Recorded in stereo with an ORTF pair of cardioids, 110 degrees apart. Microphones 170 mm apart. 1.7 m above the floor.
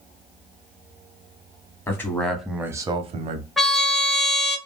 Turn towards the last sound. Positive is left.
turn(degrees=0)